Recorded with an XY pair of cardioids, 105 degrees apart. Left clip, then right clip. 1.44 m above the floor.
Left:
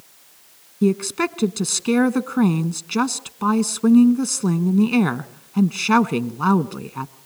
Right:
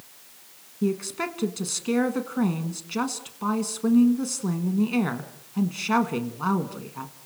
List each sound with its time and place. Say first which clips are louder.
0.8 s a woman speaking: left 7 dB; 60° left, 1.3 m